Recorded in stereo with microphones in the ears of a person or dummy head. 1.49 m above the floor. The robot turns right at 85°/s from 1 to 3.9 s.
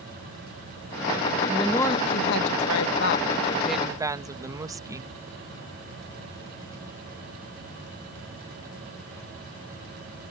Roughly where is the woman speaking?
Ahead.